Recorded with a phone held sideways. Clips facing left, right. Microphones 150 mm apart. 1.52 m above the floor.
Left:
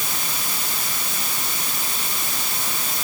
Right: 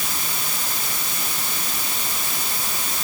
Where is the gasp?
No gasp in this recording.